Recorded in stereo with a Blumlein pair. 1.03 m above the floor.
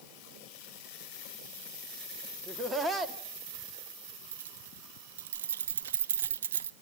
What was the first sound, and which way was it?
Laughter, 10° right.